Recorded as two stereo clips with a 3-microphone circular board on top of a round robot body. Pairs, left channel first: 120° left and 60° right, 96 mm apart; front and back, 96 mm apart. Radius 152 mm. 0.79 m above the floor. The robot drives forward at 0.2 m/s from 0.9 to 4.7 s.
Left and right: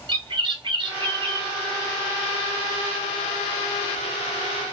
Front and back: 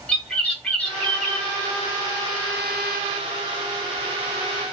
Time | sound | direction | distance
0.1 | a bird | 75° right | 1.2 m